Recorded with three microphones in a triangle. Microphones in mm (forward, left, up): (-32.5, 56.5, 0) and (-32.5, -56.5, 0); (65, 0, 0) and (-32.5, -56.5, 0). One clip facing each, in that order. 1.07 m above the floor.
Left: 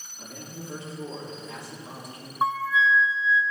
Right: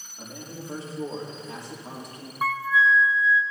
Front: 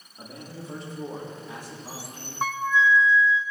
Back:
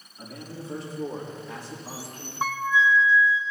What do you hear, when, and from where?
0.2 s a man speaking: 30° right, 2.5 m; by 2.3 s 50° right, 3 m
2.4 s a flute: 130° left, 0.8 m